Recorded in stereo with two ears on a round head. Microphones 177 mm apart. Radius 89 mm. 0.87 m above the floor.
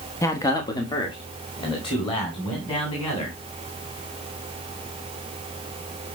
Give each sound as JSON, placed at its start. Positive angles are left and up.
{"t": 0.2, "sound": "a man speaking", "side_deg": 15, "distance_m": 0.9}